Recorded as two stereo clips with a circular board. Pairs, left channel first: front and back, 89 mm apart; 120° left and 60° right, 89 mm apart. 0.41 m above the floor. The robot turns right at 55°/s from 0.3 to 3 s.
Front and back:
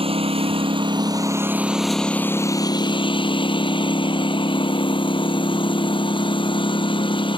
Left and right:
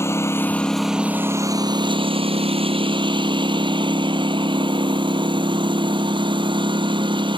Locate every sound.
0.0 s a lawn mower: straight behind; by 7.4 s 30° right